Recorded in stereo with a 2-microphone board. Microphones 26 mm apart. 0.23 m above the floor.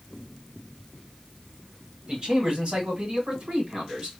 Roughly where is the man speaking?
Right.